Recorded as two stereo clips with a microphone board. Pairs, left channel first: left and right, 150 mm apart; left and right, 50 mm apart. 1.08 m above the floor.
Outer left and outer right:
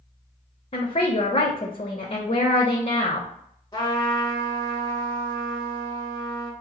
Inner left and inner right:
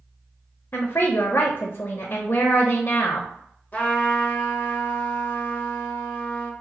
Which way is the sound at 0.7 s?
50° left (ahead or behind).